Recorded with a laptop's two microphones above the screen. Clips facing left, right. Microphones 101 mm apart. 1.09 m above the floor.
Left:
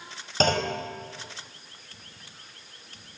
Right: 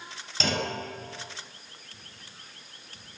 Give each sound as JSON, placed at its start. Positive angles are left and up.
{"t": 0.4, "sound": "a clunk", "side_deg": 45, "distance_m": 5.0}